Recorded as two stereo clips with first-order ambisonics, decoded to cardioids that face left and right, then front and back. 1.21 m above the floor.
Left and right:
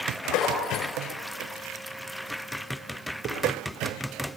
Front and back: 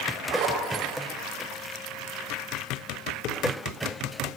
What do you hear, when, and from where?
0.3 s a zipper: 145° left, 5 m
3.2 s dishes clattering: 45° right, 2.5 m